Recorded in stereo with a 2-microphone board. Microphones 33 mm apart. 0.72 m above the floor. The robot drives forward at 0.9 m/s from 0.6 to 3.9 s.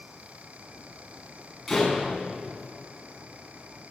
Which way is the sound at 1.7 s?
Centre (ahead or behind).